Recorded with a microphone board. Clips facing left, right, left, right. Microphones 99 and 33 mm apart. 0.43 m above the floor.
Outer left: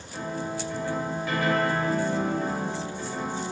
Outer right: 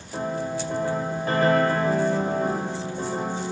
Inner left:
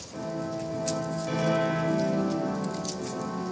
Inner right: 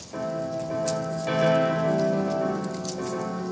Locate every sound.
0.1 s a piano: 40° right (ahead or behind), 1.3 m